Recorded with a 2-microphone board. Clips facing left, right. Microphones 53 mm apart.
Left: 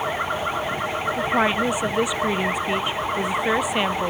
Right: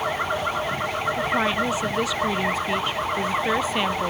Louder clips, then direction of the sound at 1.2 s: Left 3 dB; 20° left (ahead or behind).